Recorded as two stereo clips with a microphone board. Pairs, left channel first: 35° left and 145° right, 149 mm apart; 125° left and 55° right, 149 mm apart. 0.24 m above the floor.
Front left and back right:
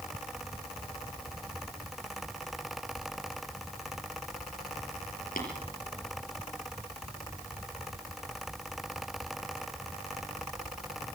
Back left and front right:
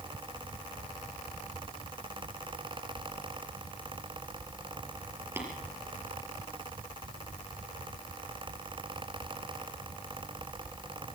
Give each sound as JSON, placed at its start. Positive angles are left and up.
{"t": 5.4, "sound": "tapping", "azimuth_deg": 15, "distance_m": 5.0}